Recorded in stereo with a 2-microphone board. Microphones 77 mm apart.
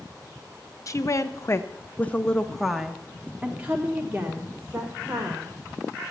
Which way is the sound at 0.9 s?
45° left (ahead or behind).